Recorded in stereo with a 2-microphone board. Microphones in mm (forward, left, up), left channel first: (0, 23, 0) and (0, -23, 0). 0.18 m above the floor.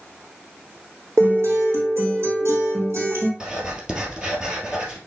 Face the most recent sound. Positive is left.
turn(degrees=-20)  # may be behind; listen again after turning